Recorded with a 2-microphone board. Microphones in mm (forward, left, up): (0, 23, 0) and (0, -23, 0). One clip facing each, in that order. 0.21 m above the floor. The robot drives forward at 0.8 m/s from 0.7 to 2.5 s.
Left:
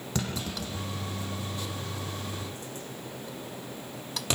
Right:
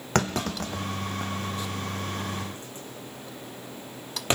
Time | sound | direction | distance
0.1 | a clunk | 55° right (ahead or behind) | 2 m